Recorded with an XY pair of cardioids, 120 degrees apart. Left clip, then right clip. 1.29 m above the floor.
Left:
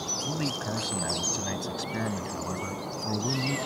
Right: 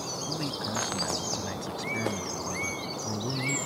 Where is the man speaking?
20° left.